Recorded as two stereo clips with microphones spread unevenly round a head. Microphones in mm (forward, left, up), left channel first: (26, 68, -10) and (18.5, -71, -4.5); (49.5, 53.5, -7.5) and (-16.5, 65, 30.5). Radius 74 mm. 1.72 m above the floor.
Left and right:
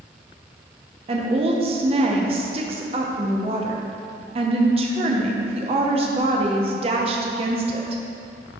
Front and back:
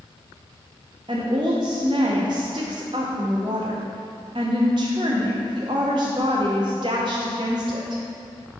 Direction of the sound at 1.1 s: 150° right.